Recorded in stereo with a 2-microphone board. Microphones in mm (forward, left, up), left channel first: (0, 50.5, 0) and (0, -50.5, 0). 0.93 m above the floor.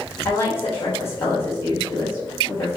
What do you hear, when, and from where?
0.2 s a woman speaking: 30° left (ahead or behind), 2.5 m